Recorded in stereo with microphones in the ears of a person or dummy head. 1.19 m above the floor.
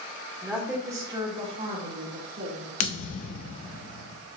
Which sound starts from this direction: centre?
A woman speaking, at 0.4 s.